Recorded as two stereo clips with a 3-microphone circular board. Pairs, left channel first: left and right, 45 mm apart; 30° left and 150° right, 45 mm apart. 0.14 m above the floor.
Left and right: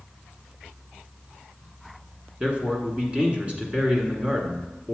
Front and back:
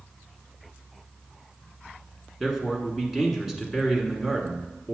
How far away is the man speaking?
About 1.2 m.